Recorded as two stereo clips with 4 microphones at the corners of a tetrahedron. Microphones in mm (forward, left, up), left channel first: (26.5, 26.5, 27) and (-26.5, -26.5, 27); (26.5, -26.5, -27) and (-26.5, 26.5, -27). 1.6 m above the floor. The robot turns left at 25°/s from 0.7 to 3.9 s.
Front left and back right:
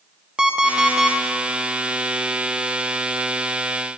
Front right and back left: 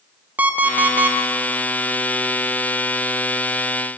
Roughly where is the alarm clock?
Behind.